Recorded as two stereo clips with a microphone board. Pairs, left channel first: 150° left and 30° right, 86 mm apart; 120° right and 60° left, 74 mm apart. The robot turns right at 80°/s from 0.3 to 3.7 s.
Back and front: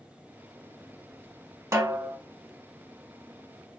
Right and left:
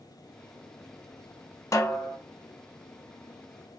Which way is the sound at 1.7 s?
85° right.